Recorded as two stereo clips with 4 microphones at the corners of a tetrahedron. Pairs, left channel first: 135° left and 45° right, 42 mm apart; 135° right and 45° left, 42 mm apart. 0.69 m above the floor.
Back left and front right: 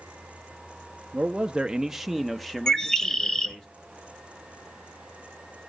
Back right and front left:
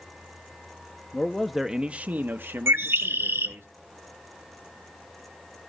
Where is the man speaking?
85° right, 0.6 m; by 3.7 s 55° left, 1.4 m.